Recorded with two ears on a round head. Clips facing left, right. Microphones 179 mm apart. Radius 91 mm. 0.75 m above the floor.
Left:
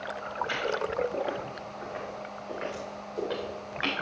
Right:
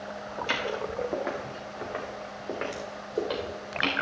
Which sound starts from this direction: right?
Footsteps, at 0.4 s.